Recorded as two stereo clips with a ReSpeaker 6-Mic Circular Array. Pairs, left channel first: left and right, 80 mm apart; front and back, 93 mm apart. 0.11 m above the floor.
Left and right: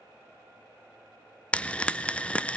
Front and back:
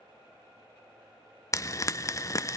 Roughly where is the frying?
Ahead left.